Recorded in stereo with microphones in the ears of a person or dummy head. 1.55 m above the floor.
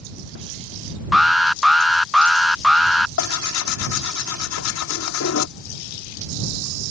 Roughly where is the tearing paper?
Left.